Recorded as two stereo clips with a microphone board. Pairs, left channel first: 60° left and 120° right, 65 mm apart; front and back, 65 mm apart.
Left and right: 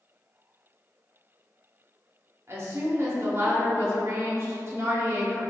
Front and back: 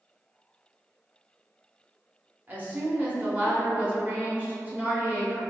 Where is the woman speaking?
130° right, 0.9 m.